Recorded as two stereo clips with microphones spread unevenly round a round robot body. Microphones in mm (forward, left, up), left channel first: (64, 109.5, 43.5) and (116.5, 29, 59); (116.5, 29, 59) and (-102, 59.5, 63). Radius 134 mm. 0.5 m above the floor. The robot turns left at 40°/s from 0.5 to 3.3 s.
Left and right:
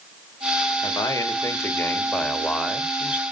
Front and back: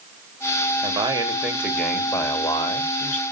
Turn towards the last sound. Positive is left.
turn(degrees=20)